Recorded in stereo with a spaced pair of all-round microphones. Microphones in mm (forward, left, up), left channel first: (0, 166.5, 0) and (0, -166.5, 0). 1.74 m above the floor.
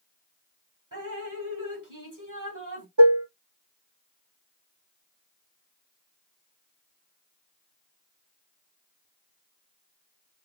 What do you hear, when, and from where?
0.9 s dripping: 65° right (ahead or behind), 1.4 m
3.0 s dishes clattering: 60° right (ahead or behind), 1.4 m